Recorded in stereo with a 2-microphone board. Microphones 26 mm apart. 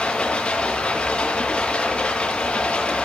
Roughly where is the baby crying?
No baby crying in this recording.